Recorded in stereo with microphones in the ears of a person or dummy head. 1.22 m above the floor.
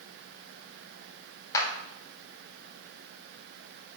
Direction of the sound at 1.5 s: 20° left (ahead or behind).